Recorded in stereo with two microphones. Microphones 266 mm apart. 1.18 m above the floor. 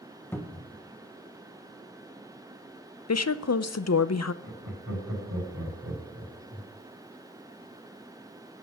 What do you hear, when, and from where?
0.3 s a cupboard door: 5° left (ahead or behind), 1.0 m
3.1 s a woman speaking: 85° left, 0.5 m
4.4 s laughter: 55° right (ahead or behind), 6 m